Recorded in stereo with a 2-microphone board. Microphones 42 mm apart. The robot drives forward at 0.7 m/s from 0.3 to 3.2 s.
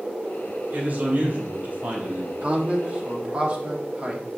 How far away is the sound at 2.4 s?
About 1.3 m.